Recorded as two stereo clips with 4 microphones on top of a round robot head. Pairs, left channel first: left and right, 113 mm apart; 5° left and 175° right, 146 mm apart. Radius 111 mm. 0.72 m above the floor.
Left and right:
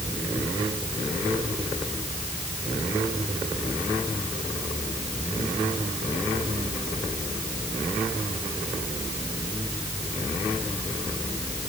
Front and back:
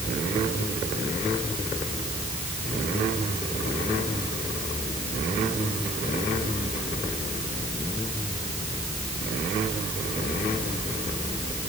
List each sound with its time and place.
Only background noise.